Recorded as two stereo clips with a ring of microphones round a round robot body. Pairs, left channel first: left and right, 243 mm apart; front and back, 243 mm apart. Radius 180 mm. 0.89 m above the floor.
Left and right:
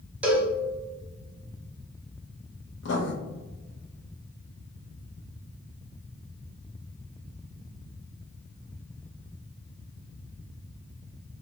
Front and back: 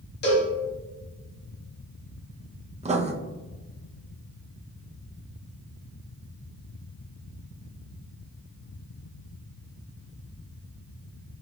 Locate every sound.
0.2 s a cowbell: 10° right, 0.8 m
2.8 s writing: 120° left, 0.7 m